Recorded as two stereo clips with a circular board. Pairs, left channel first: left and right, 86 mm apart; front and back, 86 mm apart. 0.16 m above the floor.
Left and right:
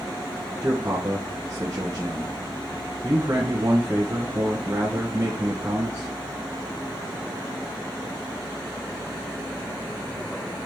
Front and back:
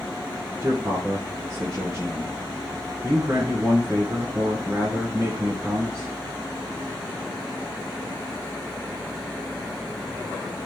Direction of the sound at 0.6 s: 140° right.